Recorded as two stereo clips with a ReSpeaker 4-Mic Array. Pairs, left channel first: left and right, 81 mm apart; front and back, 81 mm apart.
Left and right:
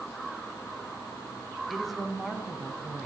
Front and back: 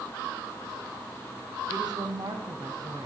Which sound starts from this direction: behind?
A woman speaking, at 1.7 s.